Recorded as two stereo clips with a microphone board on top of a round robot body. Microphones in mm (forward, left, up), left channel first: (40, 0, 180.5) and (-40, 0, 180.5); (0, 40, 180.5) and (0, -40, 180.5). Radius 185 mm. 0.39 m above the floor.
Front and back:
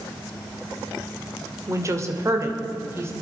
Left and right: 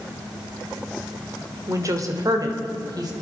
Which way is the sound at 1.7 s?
135° right.